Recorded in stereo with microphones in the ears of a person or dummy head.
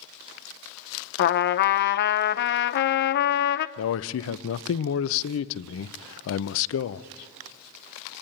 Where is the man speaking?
70° left (ahead or behind), 0.6 m.